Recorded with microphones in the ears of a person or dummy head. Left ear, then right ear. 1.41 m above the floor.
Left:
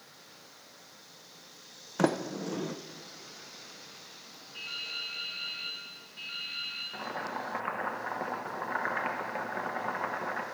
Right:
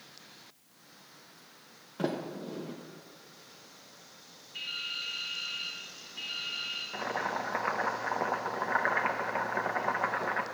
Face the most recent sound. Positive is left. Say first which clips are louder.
# right 3 dB
turn(degrees=-25)  # may be behind; listen again after turning